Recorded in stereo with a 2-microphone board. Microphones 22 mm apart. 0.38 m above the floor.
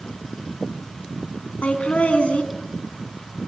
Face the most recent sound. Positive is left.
turn(degrees=70)  # may be behind; listen again after turning